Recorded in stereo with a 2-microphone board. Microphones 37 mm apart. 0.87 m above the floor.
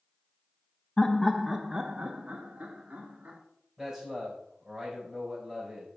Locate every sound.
1.0 s laughter: 25° left (ahead or behind), 0.6 m; by 3.4 s 40° right (ahead or behind), 2 m
3.8 s a man speaking: 5° right (ahead or behind), 3.5 m